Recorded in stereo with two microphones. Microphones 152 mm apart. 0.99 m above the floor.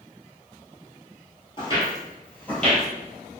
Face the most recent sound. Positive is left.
turn(degrees=5)  # may be behind; listen again after turning